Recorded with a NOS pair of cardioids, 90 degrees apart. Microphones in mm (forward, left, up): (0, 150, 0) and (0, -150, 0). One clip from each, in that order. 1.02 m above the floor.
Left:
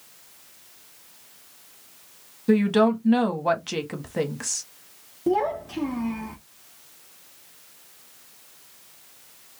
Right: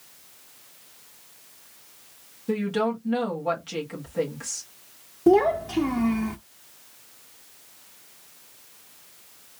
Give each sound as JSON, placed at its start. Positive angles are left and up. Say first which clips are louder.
{"t": 2.5, "sound": "a woman speaking", "louder": "left 6 dB", "azimuth_deg": 50, "distance_m": 1.6}
{"t": 5.3, "sound": "a child speaking", "louder": "right 5 dB", "azimuth_deg": -25, "distance_m": 0.7}